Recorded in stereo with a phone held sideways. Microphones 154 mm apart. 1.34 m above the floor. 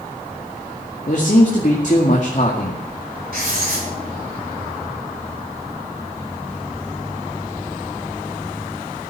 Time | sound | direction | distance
1.1 | a man speaking | 55° left (ahead or behind) | 2 m
3.3 | writing | 70° right (ahead or behind) | 7 m